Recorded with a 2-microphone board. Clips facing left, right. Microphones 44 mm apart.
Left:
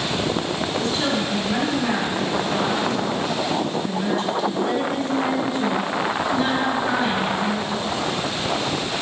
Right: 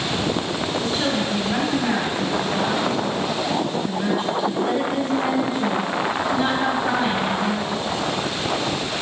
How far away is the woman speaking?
About 4.5 m.